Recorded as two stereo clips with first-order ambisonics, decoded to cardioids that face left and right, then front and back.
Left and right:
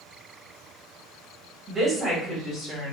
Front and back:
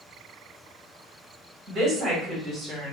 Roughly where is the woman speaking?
Behind.